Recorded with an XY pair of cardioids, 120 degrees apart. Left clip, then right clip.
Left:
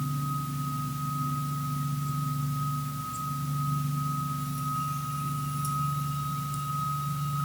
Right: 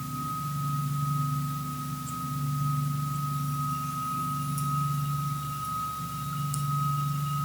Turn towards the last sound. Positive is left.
No sound to turn to.